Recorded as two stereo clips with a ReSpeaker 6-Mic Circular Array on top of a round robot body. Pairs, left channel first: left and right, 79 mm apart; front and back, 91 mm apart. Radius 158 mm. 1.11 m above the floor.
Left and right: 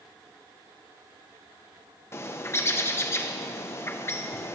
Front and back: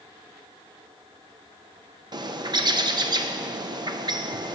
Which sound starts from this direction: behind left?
A bird, at 2.1 s.